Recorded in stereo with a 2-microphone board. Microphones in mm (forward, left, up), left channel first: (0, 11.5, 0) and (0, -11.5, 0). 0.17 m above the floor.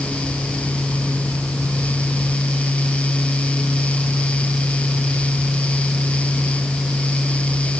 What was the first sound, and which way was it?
Only background noise.